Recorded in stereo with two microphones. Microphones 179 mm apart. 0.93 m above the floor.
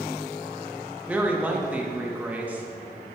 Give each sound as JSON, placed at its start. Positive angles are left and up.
{"t": 1.1, "sound": "a woman speaking", "side_deg": -10, "distance_m": 0.9}